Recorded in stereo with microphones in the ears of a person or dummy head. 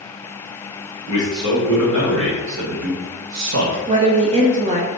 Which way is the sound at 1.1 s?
20° right (ahead or behind).